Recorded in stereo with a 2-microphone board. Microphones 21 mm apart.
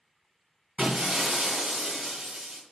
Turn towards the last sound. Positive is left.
turn(degrees=-75)  # may be behind; listen again after turning